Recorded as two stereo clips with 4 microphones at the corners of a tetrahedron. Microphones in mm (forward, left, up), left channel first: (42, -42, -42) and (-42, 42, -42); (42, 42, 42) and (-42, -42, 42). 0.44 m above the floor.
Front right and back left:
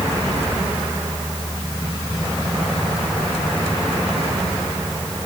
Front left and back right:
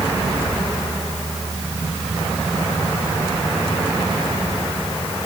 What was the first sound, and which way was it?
Only background noise.